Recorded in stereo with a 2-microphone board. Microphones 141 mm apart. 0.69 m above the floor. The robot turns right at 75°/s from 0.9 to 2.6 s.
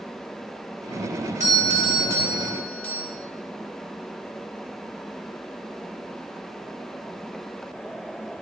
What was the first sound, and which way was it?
A doorbell, 75° right.